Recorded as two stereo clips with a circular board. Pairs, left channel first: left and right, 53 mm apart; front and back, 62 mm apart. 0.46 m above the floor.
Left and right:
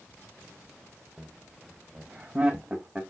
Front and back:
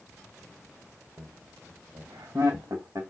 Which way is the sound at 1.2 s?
165° right.